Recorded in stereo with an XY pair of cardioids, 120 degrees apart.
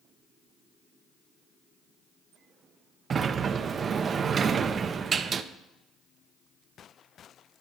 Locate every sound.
3.1 s a sliding door: 40° right, 0.5 m